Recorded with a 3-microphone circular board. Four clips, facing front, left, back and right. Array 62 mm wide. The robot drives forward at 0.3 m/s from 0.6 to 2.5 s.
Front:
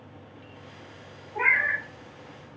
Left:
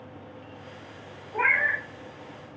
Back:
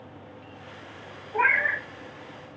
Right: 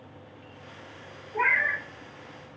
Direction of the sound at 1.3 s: 155° left.